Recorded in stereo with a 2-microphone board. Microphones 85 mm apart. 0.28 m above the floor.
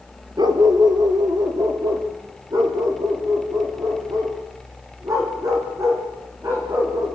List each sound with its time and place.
0.4 s a dog barking: 55° right (ahead or behind), 1.8 m; by 7.2 s 40° right (ahead or behind), 6.5 m